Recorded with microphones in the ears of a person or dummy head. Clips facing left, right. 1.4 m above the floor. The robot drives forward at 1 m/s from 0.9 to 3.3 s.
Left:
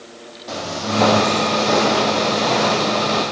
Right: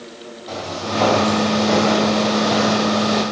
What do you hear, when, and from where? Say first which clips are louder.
0.5 s footsteps: left 1 dB; 5° left (ahead or behind), 3 m; by 3.2 s 20° right (ahead or behind), 2.5 m